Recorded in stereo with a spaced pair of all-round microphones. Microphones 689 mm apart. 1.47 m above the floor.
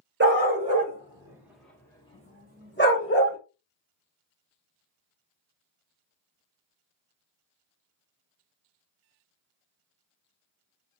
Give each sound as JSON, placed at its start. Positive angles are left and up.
{"t": 0.2, "sound": "a dog barking", "side_deg": -15, "distance_m": 1.3}